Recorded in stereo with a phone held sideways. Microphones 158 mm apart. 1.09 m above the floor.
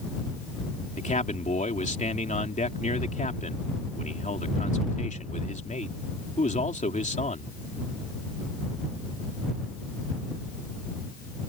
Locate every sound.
1.0 s a man speaking: 50° left (ahead or behind)